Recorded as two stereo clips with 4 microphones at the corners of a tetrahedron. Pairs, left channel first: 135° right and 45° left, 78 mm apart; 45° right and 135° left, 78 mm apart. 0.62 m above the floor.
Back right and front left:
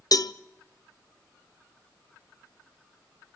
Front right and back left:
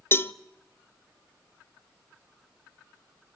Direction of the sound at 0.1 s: 105° right.